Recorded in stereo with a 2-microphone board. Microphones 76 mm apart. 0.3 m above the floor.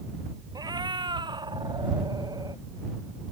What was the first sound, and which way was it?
A cat meowing, 60° right (ahead or behind).